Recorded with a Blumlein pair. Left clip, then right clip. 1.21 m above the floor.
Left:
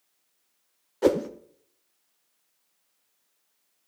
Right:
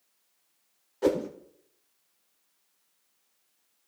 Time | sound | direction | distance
1.0 | a whoosh | 15° left | 0.5 m